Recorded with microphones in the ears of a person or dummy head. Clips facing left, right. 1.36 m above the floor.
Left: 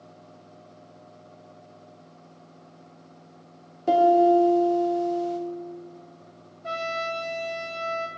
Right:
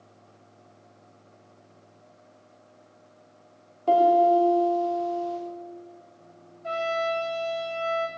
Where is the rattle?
No rattle in this recording.